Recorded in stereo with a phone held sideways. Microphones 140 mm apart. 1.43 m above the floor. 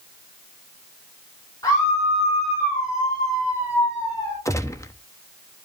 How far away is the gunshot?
About 0.8 m.